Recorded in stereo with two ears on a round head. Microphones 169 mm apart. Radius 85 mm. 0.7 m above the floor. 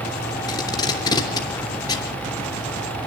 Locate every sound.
0.5 s tape being pulled: 20° left (ahead or behind), 3 m